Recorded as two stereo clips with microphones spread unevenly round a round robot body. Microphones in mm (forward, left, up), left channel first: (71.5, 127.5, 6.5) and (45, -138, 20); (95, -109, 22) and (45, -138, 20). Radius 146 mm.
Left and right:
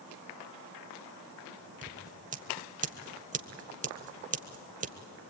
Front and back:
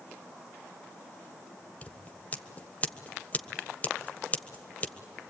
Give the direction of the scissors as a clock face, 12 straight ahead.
1 o'clock.